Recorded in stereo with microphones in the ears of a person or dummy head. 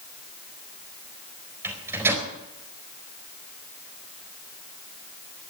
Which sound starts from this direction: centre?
A microwave, at 1.6 s.